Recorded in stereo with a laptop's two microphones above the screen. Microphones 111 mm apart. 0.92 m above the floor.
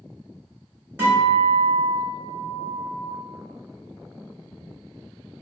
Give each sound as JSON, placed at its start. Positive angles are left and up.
{"t": 1.0, "sound": "a guitar", "side_deg": -20, "distance_m": 2.0}